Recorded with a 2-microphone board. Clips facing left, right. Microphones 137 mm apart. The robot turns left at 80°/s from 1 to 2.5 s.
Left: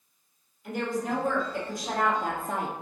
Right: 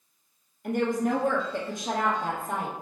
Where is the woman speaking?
90° right, 2 m; by 2.7 s 150° left, 2 m.